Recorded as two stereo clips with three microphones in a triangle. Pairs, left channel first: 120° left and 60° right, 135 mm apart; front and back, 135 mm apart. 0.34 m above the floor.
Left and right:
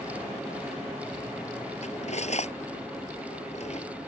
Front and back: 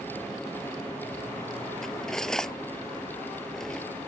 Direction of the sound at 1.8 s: 85° left.